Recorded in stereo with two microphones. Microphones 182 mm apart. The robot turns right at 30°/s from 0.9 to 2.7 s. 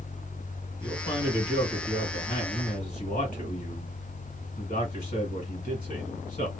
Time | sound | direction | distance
0.8 | a man speaking | 25° left | 2.0 m